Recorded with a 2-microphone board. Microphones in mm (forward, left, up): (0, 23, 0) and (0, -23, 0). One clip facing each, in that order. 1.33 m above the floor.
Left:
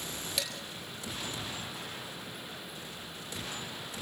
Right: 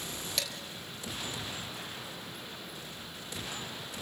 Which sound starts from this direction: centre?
Dishes clattering, at 0.4 s.